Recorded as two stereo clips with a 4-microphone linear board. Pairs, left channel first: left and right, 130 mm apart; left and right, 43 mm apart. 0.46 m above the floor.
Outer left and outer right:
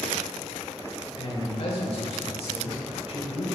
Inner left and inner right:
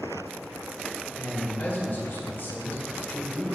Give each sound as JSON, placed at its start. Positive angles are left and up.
{"t": 1.2, "sound": "a man speaking", "side_deg": 50, "distance_m": 1.4}